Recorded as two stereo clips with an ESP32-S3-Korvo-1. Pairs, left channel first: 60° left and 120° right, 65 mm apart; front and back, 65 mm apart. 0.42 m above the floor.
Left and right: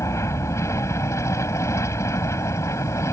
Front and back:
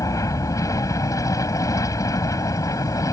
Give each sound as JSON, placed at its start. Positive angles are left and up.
{"t": 0.0, "sound": "an aircraft", "azimuth_deg": 25}